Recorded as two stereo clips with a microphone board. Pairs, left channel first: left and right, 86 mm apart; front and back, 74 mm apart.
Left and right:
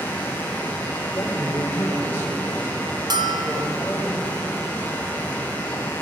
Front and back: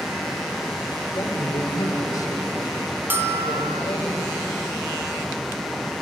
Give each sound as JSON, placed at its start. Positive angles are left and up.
{"t": 1.1, "sound": "a man speaking", "azimuth_deg": 30, "distance_m": 3.0}
{"t": 3.1, "sound": "a bell", "azimuth_deg": -120, "distance_m": 1.1}